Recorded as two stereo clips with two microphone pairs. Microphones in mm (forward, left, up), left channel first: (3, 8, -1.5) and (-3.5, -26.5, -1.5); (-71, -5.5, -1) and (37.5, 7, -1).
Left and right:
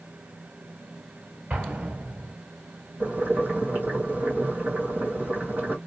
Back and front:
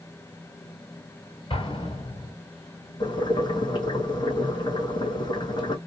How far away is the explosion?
About 1.6 m.